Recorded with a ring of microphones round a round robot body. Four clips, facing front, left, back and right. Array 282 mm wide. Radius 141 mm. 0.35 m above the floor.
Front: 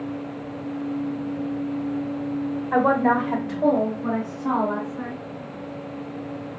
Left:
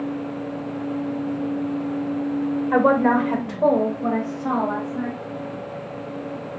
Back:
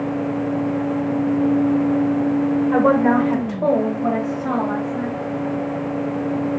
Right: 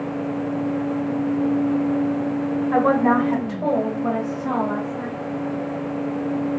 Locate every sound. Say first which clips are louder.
2.7 s a woman speaking: even, back 2 dB; 105° left, 1.3 m; by 5.2 s 155° left, 2.5 m